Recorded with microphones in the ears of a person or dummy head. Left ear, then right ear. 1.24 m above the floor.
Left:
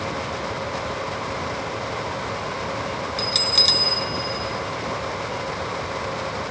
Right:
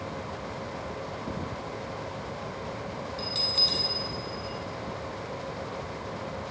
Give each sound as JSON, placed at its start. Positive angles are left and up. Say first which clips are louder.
{"t": 3.2, "sound": "a bell", "louder": "left 7 dB", "side_deg": 60, "distance_m": 0.7}